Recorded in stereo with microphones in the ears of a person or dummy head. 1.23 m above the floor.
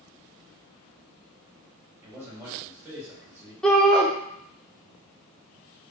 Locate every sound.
2.0 s a man speaking: 15° right (ahead or behind), 1.1 m
3.6 s a shout: 5° left (ahead or behind), 0.5 m